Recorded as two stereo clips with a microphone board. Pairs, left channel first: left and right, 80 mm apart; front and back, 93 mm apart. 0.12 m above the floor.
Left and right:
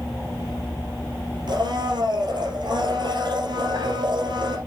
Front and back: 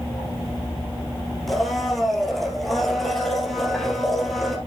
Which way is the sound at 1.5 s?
90° right.